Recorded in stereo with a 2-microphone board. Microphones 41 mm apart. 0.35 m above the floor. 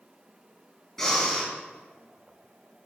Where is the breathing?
5° left (ahead or behind), 4.5 m.